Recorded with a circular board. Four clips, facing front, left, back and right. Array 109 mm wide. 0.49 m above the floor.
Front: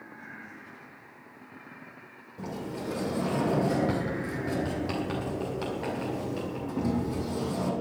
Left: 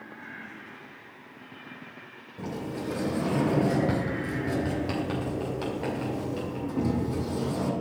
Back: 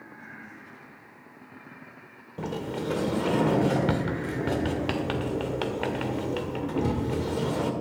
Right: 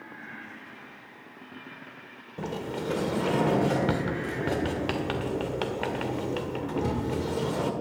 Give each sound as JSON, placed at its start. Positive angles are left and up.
{"t": 2.4, "sound": "a sliding door", "azimuth_deg": -135, "distance_m": 1.7}